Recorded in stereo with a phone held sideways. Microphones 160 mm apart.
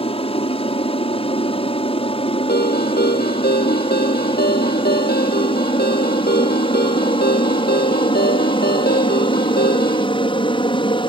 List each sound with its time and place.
0.0 s an aircraft: 35° left (ahead or behind); by 11.1 s 30° left (ahead or behind)
2.5 s a ringtone: 85° left